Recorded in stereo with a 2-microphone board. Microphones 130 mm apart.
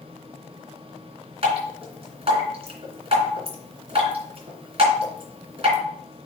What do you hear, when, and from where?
1.4 s dripping: 50° right (ahead or behind), 2.5 m